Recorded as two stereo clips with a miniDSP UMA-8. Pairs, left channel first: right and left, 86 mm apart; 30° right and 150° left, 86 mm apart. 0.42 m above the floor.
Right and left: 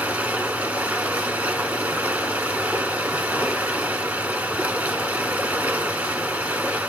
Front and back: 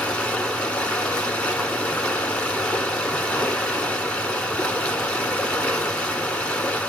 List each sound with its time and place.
0.0 s running water: 40° left, 1.2 m